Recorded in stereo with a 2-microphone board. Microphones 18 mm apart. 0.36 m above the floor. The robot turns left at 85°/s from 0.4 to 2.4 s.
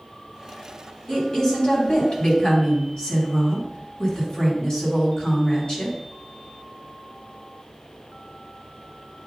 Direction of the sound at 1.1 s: 170° left.